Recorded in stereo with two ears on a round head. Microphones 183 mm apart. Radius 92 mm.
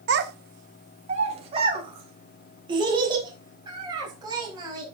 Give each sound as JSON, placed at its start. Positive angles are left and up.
{"t": 0.1, "sound": "a child speaking", "side_deg": -60, "distance_m": 0.6}